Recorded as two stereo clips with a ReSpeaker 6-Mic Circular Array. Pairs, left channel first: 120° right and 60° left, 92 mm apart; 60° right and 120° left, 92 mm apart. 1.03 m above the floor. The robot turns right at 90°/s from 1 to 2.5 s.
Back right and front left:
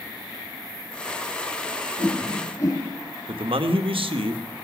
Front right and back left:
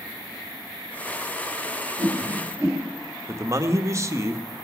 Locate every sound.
2.0 s a whoosh: 150° left, 2.5 m; by 2.8 s 165° right, 2.5 m
3.3 s a man speaking: 65° left, 1.0 m